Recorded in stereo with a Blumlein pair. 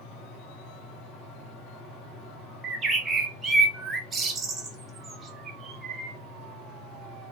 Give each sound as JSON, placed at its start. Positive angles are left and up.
{"t": 0.0, "sound": "a fan", "azimuth_deg": 25, "distance_m": 1.3}
{"t": 2.6, "sound": "a bird", "azimuth_deg": -20, "distance_m": 0.7}